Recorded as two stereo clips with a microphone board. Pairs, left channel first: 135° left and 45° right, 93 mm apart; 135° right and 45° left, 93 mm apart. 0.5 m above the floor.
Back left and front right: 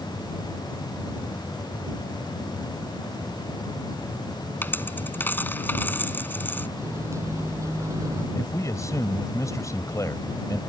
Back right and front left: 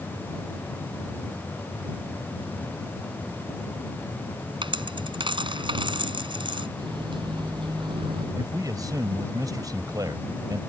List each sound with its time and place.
4.6 s a dropped coin: 65° left
6.8 s a microwave: 15° left
8.3 s a man speaking: 85° left